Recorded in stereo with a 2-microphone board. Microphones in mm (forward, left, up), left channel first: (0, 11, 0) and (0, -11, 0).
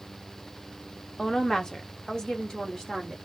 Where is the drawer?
No drawer in this recording.